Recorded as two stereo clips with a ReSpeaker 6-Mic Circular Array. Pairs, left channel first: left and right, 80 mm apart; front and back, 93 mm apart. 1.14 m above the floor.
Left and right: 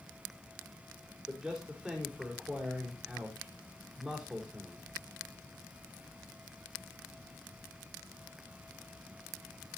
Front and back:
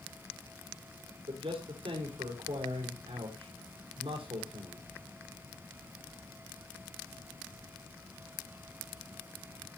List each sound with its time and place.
1.3 s a man speaking: 170° right, 4 m